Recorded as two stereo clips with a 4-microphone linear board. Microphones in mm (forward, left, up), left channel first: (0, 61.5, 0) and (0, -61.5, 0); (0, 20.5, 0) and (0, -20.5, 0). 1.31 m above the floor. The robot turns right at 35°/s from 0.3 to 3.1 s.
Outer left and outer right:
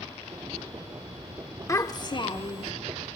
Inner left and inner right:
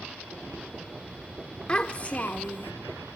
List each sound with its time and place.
1.7 s a child speaking: 30° left, 0.5 m; by 2.7 s 65° left, 0.5 m